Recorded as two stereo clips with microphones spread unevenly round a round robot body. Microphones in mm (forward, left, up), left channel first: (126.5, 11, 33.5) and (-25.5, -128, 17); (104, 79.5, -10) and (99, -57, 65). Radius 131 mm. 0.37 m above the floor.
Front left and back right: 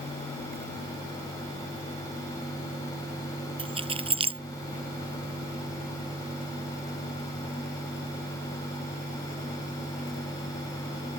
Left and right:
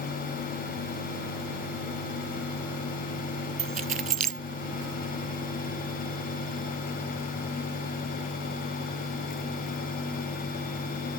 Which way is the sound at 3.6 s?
75° right.